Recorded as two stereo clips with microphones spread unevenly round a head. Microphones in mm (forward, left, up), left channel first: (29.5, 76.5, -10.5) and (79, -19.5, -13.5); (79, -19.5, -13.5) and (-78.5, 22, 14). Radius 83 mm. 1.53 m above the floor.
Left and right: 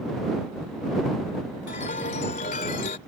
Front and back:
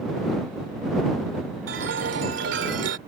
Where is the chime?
150° left.